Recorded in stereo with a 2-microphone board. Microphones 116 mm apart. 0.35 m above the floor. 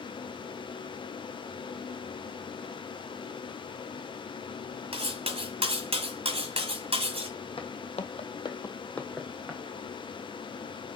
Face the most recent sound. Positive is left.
turn(degrees=-5)  # may be behind; listen again after turning